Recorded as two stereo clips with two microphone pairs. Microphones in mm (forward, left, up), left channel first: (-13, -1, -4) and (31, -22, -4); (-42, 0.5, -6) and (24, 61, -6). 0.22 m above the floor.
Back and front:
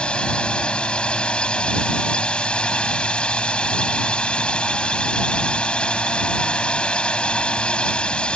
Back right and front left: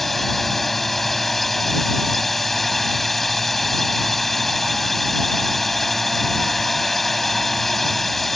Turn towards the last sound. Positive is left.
turn(degrees=140)